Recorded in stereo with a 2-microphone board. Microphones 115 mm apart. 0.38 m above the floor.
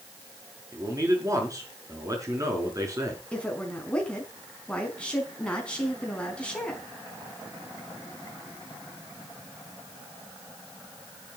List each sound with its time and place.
0.7 s a man speaking: 30° right (ahead or behind), 5.5 m
3.3 s a woman speaking: 10° left (ahead or behind), 4 m